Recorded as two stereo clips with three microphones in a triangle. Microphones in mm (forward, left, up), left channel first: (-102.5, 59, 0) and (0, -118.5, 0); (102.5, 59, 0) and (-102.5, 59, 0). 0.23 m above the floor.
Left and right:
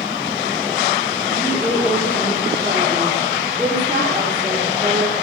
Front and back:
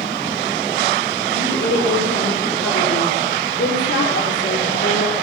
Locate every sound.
1.3 s a woman speaking: 20° left, 5 m